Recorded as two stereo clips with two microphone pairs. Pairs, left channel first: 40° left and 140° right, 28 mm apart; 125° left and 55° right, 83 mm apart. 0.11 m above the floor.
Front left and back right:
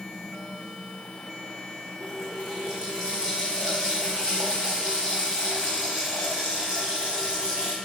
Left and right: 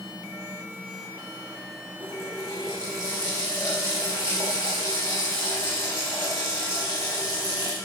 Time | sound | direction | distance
2.0 | a running tap | 170° left | 5 m